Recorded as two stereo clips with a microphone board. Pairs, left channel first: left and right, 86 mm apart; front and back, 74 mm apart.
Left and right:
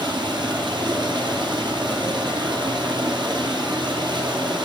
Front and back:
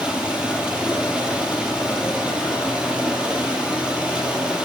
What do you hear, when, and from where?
0.0 s running water: 105° right, 2 m